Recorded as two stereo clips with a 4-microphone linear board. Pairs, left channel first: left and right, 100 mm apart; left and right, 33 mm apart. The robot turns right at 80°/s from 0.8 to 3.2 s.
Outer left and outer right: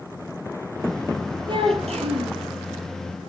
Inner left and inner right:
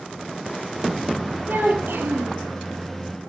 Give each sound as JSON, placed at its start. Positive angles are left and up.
{"t": 1.5, "sound": "a child speaking", "azimuth_deg": -130, "distance_m": 5.5}